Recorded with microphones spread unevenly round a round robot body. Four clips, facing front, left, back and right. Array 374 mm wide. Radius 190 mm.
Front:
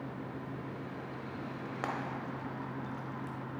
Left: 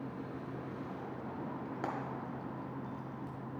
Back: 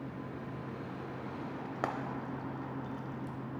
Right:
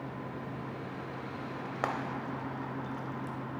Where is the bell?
No bell in this recording.